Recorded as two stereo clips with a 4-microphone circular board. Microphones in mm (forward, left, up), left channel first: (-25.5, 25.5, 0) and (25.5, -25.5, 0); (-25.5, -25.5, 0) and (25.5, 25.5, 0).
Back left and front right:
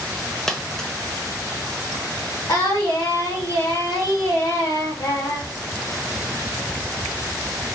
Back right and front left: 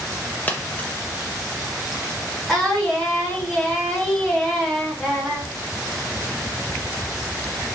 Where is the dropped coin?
155° right, 0.6 m.